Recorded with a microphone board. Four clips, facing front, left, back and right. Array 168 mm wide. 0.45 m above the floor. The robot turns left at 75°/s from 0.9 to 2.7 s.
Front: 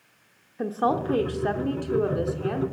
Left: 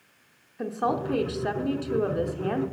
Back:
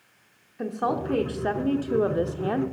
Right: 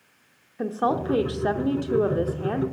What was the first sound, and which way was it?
A woman speaking, 45° right.